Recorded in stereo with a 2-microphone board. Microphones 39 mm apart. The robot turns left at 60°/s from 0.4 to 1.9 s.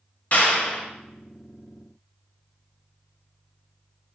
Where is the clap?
45° left (ahead or behind), 1.1 m; by 0.9 s 15° left (ahead or behind), 1.1 m.